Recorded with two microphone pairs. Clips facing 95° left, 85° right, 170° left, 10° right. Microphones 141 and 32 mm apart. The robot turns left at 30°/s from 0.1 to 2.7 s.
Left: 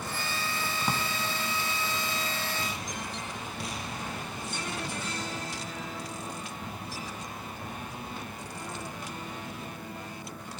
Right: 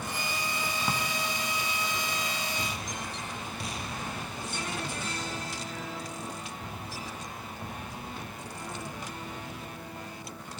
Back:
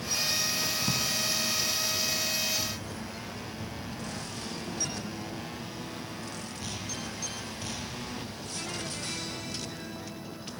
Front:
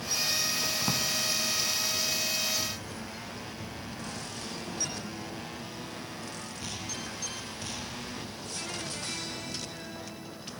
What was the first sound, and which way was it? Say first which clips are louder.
A drawer: left 2 dB, even; 25° left.